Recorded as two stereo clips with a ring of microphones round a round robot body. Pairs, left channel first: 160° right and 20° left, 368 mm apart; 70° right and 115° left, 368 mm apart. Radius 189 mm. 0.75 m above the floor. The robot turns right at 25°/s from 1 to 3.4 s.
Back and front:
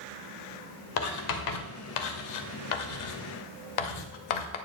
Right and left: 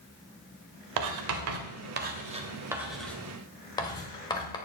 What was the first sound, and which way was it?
Writing, 155° left.